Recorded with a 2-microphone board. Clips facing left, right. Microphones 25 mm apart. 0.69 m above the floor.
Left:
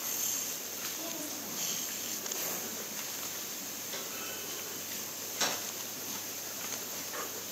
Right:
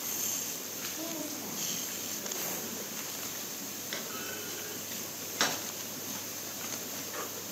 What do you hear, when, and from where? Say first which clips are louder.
0.9 s a woman speaking: right 2 dB; 10° right (ahead or behind), 1.4 m; by 2.8 s 25° right (ahead or behind), 2.5 m
3.9 s a clunk: right 3 dB; 45° right (ahead or behind), 1.5 m